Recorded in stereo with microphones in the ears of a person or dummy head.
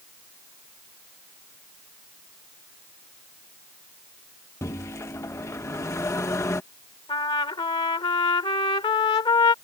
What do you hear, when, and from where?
4.6 s a microwave: 15° left (ahead or behind)
7.1 s a trumpet: 20° left (ahead or behind)